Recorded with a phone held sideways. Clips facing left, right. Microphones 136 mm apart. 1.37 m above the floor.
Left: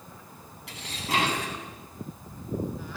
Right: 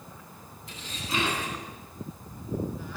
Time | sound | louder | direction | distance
0.7 | dishes clattering | left 4 dB | 75° left (ahead or behind) | 8.5 m